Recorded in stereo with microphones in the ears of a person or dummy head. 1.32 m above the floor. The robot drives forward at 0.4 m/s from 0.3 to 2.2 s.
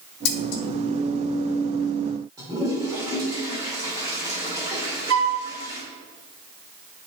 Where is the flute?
65° right (ahead or behind), 0.9 m.